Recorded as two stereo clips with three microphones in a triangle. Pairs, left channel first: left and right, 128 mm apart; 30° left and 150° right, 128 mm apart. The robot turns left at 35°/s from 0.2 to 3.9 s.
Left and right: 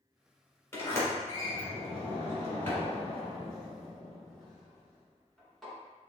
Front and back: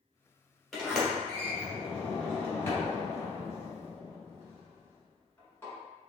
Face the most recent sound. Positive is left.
turn(degrees=10)